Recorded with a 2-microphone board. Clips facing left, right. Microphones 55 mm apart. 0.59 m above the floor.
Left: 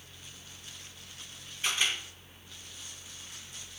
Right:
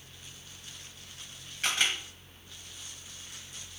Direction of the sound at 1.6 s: 75° right (ahead or behind).